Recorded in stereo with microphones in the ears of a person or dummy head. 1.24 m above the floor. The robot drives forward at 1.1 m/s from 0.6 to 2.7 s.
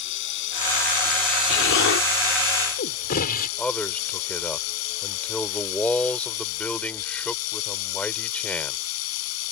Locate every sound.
0.0 s running water: 70° left (ahead or behind); by 9.5 s 80° left
1.5 s an explosion: 70° left (ahead or behind); by 3.5 s 50° left (ahead or behind)
3.6 s a man speaking: 10° left (ahead or behind)